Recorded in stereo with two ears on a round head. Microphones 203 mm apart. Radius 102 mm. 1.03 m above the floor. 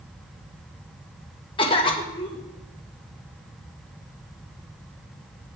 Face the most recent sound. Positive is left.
turn(degrees=25)  # may be behind; listen again after turning